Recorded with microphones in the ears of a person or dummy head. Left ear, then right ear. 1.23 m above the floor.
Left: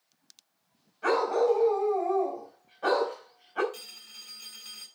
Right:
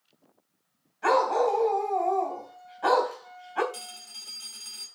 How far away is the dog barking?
About 3.5 m.